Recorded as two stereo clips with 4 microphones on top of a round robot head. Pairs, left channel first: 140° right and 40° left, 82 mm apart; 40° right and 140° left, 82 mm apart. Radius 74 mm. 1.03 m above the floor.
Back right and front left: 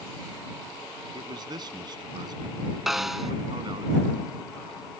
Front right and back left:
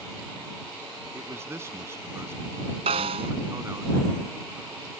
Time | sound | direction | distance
1.1 | a man speaking | 80° left | ?
2.9 | a snare drum | 130° left | ?